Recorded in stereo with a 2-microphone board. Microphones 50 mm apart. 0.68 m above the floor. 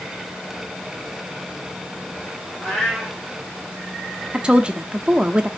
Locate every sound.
2.6 s a cat meowing: 5° left (ahead or behind), 1.8 m
4.3 s a woman speaking: 20° right (ahead or behind), 0.6 m